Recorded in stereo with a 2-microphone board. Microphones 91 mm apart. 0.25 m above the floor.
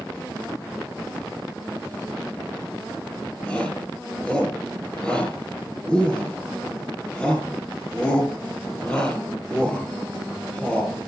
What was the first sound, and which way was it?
A shout, 10° left (ahead or behind).